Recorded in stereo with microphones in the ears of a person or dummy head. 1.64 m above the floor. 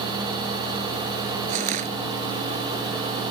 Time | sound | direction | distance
1.5 | crushing | 40° right (ahead or behind) | ?